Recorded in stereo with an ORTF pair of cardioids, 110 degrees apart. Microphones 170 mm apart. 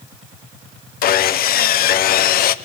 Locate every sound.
1.0 s sawing: 60° left, 1.1 m